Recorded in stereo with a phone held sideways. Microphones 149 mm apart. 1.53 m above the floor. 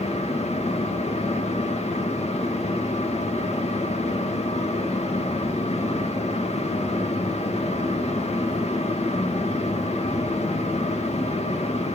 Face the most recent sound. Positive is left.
turn(degrees=45)  # may be behind; listen again after turning